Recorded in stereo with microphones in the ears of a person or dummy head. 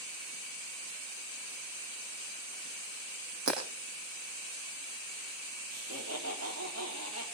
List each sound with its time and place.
3.5 s breaking glass: 65° right (ahead or behind), 5 m
5.7 s laughter: 90° right, 4.5 m